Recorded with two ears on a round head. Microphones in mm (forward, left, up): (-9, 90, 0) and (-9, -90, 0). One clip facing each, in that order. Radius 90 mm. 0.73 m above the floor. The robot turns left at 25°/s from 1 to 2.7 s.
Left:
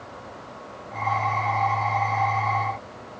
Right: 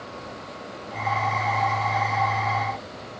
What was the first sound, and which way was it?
Only background noise.